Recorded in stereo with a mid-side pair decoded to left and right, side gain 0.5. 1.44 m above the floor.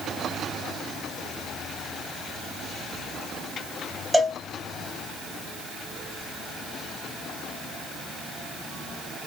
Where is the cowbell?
5° right, 1.4 m.